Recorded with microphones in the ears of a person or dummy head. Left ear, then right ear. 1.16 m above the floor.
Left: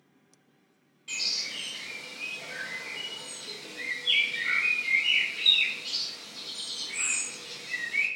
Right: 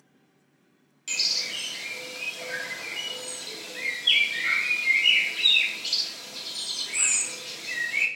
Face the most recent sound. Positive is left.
turn(degrees=-80)